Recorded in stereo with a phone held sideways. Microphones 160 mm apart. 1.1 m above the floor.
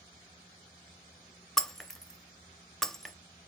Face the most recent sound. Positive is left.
turn(degrees=5)  # may be behind; listen again after turning